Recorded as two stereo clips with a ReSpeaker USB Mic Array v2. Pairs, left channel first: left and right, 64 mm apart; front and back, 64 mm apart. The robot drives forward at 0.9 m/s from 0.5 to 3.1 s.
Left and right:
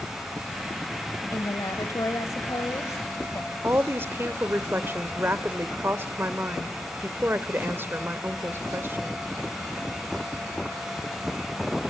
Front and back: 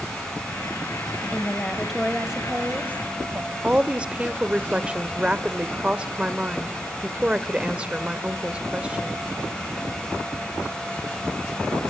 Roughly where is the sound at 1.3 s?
Ahead left.